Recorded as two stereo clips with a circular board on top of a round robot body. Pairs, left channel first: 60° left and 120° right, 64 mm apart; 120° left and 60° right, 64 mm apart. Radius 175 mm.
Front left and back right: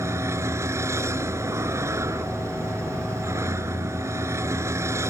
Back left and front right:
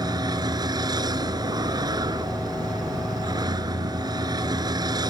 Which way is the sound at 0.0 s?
75° right.